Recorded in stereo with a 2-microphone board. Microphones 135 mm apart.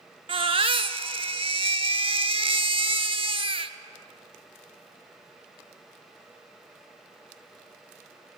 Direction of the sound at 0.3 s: 45° right (ahead or behind).